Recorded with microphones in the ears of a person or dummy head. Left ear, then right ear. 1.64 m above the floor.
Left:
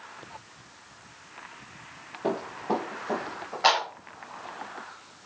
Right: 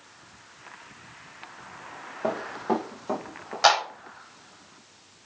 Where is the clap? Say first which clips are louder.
Right 2 dB; 75° right (ahead or behind), 7 m.